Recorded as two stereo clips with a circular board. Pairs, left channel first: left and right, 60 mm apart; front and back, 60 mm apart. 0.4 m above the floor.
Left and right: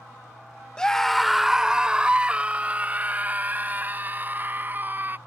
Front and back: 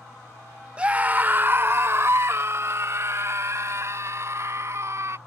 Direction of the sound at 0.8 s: 145° left.